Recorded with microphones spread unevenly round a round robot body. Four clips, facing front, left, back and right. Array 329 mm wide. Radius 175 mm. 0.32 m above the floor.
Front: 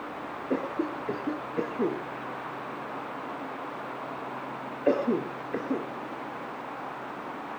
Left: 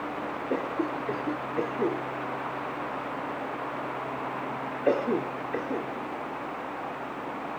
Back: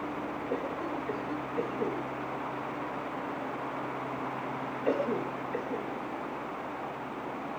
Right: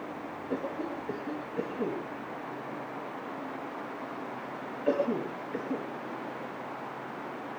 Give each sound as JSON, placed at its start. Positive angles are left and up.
{"t": 0.5, "sound": "a cough", "azimuth_deg": 25, "distance_m": 4.0}